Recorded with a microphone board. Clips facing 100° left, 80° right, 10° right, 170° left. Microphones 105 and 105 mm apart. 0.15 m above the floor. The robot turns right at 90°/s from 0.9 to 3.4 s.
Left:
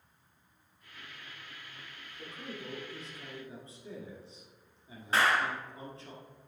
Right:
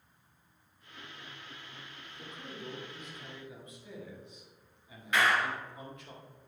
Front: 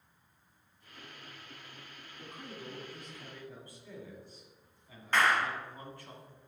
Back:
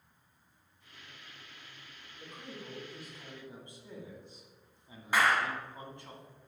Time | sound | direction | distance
2.2 | a man speaking | 10° left | 1.7 m
5.1 | a clap | 95° left | 1.2 m